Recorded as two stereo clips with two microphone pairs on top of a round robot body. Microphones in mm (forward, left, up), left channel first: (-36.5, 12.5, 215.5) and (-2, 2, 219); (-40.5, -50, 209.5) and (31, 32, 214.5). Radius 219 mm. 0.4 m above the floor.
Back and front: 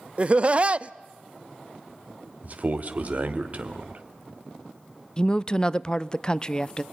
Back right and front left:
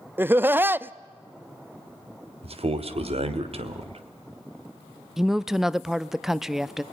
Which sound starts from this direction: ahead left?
A man speaking, at 2.4 s.